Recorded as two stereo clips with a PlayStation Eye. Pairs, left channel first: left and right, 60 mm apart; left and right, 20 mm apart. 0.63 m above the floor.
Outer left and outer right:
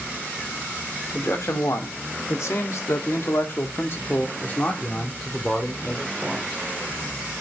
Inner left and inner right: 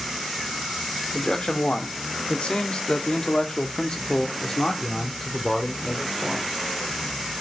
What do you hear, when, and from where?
1.1 s a man speaking: 50° left (ahead or behind), 1.8 m; by 6.5 s 10° left (ahead or behind), 2.5 m